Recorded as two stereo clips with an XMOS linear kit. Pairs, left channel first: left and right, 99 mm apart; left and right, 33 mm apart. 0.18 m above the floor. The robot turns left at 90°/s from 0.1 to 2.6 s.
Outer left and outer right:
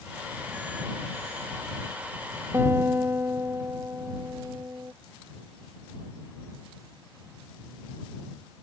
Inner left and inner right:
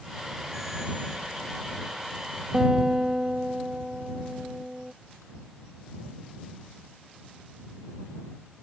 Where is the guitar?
30° right (ahead or behind); by 4.9 s 25° right (ahead or behind).